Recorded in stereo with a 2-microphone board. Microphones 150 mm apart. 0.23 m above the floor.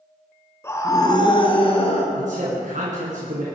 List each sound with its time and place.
0.6 s a scream: 20° left (ahead or behind), 2 m; by 2.0 s 40° left (ahead or behind), 3.5 m
2.1 s a man speaking: 65° right (ahead or behind), 2.5 m